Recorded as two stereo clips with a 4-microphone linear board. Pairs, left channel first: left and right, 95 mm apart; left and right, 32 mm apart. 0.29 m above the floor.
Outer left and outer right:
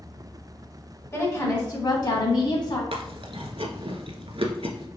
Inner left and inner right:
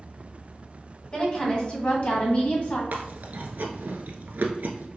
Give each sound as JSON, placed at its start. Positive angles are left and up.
{"t": 1.1, "sound": "a woman speaking", "side_deg": 30, "distance_m": 1.6}
{"t": 2.9, "sound": "chewing", "side_deg": -75, "distance_m": 0.6}